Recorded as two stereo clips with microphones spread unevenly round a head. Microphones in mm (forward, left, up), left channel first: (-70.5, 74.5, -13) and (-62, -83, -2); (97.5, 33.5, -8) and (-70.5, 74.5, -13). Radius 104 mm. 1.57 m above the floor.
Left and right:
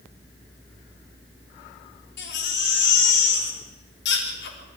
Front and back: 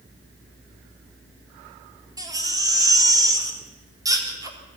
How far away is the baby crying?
About 4 m.